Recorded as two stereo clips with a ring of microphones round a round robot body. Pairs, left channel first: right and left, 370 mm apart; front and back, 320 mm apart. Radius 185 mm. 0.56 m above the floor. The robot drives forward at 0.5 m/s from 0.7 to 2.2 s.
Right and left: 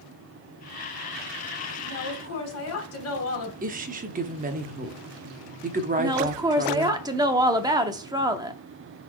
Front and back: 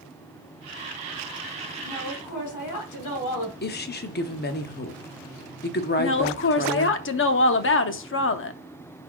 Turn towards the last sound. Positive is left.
turn(degrees=15)